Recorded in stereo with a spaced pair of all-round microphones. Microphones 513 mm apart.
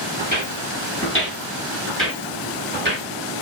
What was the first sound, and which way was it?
Footsteps, 40° left (ahead or behind).